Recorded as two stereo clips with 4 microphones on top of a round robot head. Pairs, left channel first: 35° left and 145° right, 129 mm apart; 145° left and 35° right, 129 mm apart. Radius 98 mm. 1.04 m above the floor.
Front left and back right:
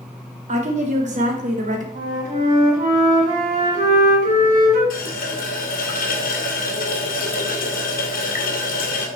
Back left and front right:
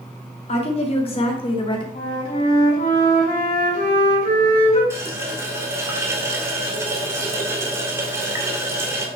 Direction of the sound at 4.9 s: 35° left.